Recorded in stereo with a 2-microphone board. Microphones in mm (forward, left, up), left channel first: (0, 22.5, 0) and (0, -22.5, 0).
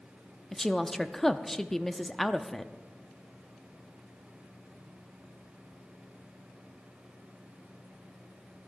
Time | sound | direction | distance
0.5 | a woman speaking | 10° left (ahead or behind) | 0.5 m